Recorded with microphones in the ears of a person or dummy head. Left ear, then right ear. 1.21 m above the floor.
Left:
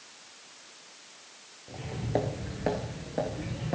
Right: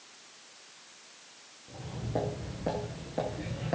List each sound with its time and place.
1.7 s footsteps: 35° left (ahead or behind), 1.4 m; by 3.8 s 10° right (ahead or behind), 1.2 m